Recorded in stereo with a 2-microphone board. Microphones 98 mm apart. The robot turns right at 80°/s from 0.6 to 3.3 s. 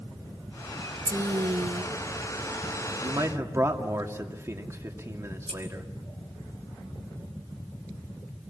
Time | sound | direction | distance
1.1 | a woman speaking | 140° right | 1.0 m
3.0 | a man speaking | 50° right (ahead or behind) | 2.5 m
5.5 | scissors | 75° right (ahead or behind) | 5 m